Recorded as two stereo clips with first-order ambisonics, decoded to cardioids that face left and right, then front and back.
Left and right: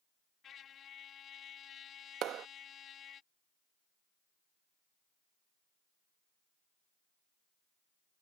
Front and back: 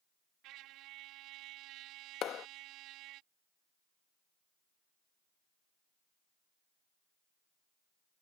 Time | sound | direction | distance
0.4 | a trumpet | 150° left | ?
2.2 | a clap | 45° right | ?